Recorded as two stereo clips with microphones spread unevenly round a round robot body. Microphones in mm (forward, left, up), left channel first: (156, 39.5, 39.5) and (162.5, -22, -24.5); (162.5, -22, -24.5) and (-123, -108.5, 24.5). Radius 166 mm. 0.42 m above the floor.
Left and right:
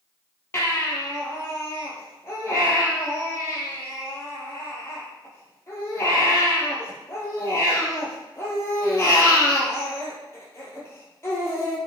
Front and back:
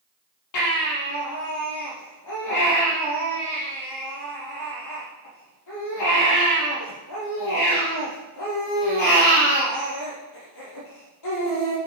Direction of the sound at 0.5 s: 60° left.